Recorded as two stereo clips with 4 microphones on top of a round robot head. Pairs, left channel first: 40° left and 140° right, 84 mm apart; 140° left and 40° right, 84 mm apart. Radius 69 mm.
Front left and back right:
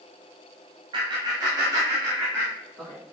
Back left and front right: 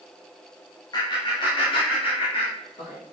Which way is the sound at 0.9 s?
175° right.